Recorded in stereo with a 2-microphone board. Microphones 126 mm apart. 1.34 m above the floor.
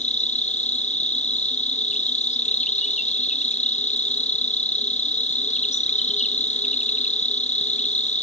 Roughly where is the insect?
Left.